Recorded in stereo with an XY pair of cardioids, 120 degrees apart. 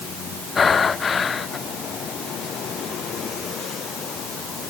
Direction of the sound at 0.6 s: 30° left.